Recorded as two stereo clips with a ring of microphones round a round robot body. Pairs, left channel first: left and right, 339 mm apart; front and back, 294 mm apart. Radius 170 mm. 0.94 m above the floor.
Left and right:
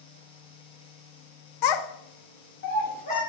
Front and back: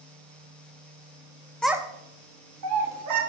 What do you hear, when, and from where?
1.6 s a child speaking: 85° left, 0.5 m; by 3.2 s 160° left, 1.3 m